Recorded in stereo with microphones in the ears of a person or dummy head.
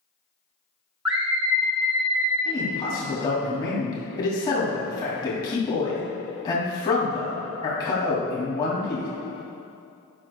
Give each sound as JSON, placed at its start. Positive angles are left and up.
{"t": 1.1, "sound": "a scream", "side_deg": -5, "distance_m": 0.8}
{"t": 2.5, "sound": "a man speaking", "side_deg": 20, "distance_m": 2.5}